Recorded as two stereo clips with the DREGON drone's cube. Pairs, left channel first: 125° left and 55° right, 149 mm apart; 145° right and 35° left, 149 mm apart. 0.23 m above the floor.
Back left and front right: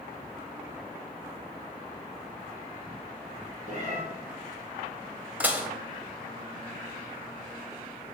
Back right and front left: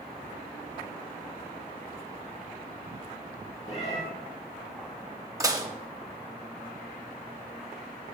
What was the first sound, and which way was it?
A cat meowing, 95° right.